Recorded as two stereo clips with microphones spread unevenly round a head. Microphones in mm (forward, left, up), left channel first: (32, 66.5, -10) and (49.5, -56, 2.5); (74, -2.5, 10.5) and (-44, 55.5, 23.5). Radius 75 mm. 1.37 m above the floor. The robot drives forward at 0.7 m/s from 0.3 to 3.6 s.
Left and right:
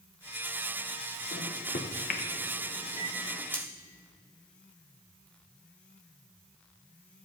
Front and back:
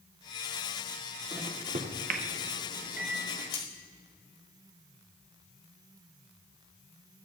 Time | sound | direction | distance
1.3 | a microwave | 95° left | 0.6 m
3.5 | cutlery clinking | 20° left | 3 m